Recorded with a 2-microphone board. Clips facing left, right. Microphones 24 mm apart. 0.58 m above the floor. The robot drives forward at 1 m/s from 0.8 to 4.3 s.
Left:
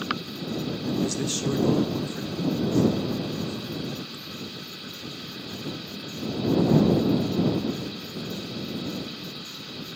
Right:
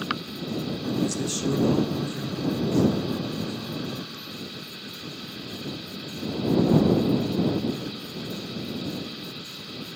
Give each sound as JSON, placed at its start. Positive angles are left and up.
{"t": 1.0, "sound": "a man speaking", "side_deg": 15, "distance_m": 0.6}